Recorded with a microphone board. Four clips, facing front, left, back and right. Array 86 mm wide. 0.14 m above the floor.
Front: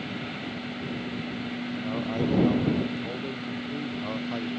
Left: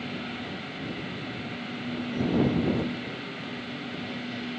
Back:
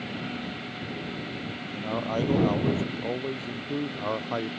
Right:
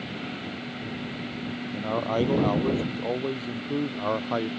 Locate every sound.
1.7 s a man speaking: 105° right; by 4.5 s 110° right